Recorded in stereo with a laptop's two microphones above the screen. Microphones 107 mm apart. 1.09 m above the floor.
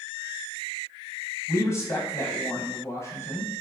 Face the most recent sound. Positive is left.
turn(degrees=25)  # may be behind; listen again after turning